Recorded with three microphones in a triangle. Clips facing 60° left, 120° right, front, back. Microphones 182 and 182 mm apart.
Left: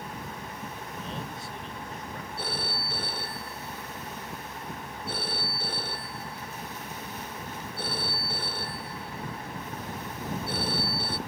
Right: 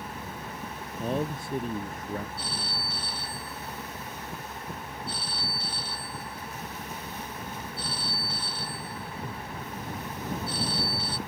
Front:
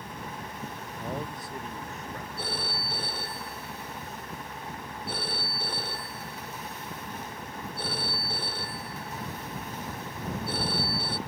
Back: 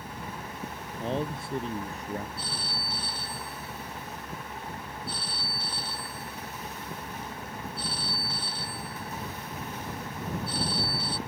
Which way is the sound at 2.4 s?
30° left.